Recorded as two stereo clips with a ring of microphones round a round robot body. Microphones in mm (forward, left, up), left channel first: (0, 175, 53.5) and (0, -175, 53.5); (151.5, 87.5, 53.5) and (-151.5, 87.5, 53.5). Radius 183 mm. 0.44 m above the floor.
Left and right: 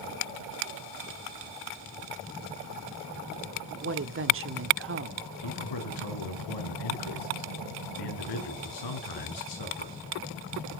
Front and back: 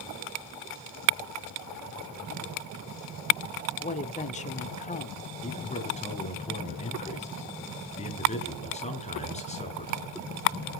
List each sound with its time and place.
3.8 s a woman speaking: 55° right, 1.2 m
5.4 s a man speaking: 70° left, 6 m